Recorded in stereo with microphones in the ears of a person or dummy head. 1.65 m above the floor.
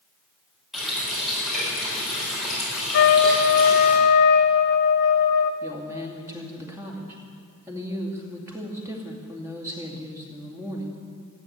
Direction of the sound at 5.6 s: 15° right (ahead or behind).